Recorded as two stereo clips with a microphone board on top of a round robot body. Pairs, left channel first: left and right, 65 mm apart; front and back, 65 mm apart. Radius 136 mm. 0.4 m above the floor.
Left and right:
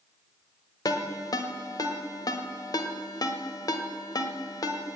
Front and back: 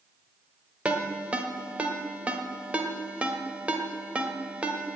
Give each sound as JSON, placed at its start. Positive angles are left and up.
{"t": 0.8, "sound": "a ringtone", "azimuth_deg": 110, "distance_m": 1.6}